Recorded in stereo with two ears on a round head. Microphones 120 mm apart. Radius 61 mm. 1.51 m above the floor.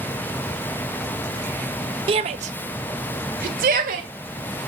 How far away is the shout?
About 0.7 m.